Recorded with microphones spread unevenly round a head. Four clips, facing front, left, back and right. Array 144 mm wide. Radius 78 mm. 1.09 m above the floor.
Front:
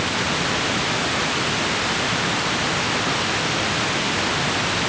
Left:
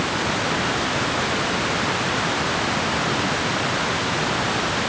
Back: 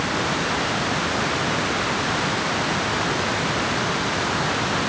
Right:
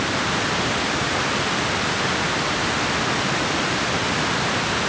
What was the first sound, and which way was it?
Only background noise.